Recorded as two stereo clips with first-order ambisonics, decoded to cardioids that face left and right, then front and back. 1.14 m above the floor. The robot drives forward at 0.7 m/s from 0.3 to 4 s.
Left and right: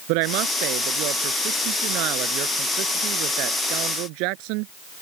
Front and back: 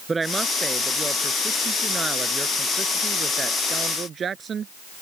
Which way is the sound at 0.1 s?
105° right.